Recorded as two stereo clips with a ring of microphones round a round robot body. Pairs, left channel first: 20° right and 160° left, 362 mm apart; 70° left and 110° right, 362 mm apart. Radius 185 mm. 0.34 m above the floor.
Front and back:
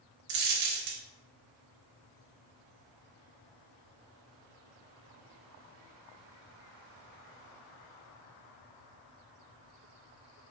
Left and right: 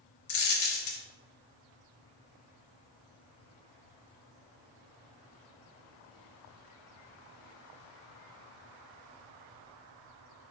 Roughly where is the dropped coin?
Behind left.